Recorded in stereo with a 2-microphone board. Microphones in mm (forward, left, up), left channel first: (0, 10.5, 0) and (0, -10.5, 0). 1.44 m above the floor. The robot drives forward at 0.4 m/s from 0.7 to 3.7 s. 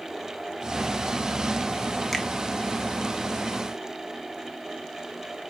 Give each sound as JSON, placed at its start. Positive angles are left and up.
{"t": 2.1, "sound": "a finger snap", "side_deg": -5, "distance_m": 1.3}